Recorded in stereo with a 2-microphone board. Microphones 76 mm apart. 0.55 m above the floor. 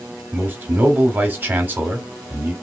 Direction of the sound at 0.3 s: 25° right (ahead or behind).